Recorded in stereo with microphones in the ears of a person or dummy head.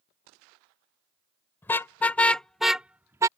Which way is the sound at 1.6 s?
25° left (ahead or behind).